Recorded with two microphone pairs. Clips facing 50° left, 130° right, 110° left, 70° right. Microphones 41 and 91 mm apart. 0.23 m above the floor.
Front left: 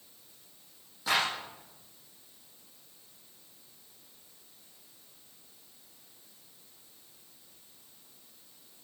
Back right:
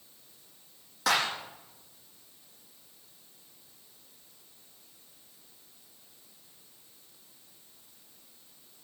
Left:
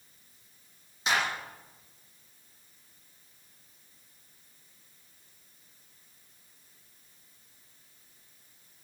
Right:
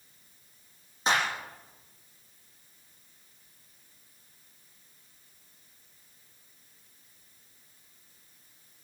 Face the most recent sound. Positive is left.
turn(degrees=-120)